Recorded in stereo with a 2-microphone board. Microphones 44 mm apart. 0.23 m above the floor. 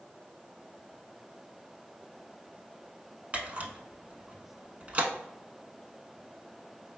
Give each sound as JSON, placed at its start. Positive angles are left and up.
{"t": 3.3, "sound": "a camera shutter", "side_deg": -30, "distance_m": 0.6}